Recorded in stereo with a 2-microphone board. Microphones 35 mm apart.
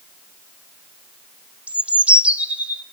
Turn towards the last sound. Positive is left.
turn(degrees=-35)  # may be behind; listen again after turning